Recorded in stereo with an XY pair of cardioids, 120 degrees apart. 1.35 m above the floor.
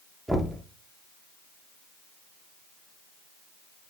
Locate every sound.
0.3 s knocking: 10° right, 0.7 m